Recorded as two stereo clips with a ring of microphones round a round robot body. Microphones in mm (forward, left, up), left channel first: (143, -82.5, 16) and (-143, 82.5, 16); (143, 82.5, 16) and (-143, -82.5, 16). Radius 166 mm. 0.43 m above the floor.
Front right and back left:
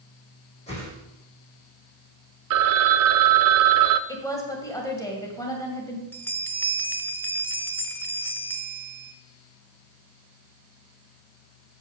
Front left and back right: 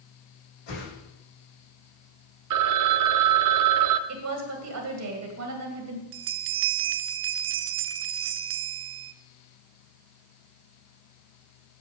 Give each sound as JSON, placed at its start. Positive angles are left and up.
{"t": 0.7, "sound": "a whoosh", "azimuth_deg": 40, "distance_m": 5.0}
{"t": 2.5, "sound": "a phone ringing", "azimuth_deg": -175, "distance_m": 0.5}
{"t": 4.1, "sound": "a woman speaking", "azimuth_deg": -110, "distance_m": 1.9}
{"t": 6.1, "sound": "a bell", "azimuth_deg": -110, "distance_m": 0.5}